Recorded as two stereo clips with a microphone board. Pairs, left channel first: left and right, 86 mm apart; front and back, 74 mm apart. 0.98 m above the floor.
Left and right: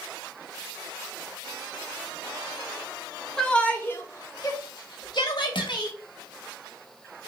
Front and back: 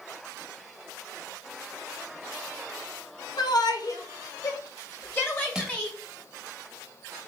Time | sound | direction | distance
3.4 | a shout | 5° left | 1.1 m
5.5 | crushing | 100° left | 0.8 m